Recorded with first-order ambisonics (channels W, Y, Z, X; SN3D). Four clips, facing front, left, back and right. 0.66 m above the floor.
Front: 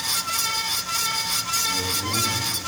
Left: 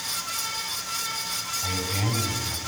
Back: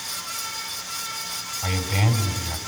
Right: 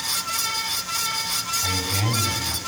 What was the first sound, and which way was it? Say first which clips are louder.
A man speaking: right 3 dB, front 1 dB; 165° right.